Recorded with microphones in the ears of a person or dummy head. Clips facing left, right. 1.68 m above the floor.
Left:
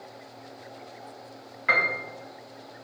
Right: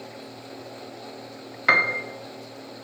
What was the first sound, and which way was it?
A piano, 80° right.